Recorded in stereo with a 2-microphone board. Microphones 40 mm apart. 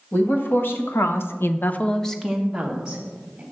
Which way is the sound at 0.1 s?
55° left (ahead or behind).